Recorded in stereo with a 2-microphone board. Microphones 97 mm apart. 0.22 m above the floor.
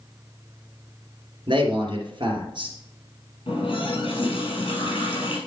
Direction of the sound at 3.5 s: 60° left (ahead or behind).